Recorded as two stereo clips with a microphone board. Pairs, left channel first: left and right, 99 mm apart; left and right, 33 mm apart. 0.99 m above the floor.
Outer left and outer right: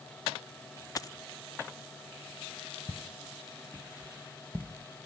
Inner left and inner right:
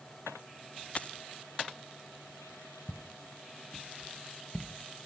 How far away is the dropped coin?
About 0.7 m.